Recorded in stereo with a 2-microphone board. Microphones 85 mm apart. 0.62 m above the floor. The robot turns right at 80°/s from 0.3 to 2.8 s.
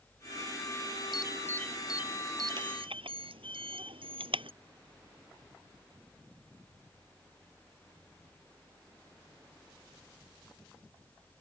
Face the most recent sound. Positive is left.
turn(degrees=-80)